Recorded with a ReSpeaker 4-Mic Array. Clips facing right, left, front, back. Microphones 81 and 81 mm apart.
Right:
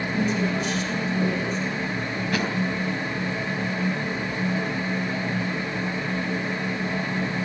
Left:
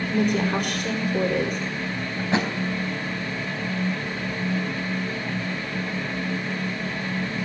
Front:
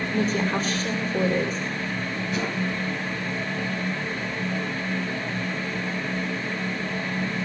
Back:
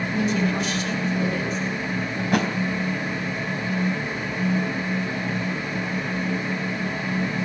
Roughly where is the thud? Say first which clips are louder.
Left 3 dB, back 7 dB; behind left.